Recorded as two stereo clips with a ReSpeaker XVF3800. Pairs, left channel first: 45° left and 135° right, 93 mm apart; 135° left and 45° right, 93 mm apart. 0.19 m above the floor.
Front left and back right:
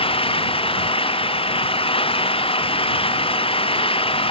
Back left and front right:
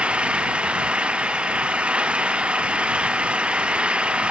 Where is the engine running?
30° left.